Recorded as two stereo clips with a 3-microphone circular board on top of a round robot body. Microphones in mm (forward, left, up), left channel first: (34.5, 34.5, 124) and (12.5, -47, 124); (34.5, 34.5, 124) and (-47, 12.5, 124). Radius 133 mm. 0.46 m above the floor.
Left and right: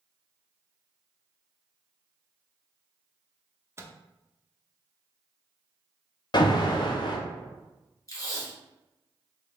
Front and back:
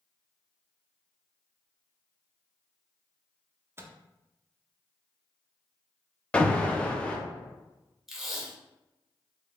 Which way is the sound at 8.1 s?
110° left.